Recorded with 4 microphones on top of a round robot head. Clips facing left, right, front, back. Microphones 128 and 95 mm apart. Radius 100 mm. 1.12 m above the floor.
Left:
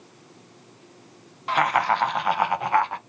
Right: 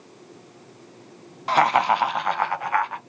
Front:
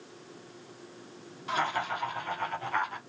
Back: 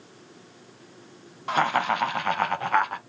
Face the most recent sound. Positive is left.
turn(degrees=145)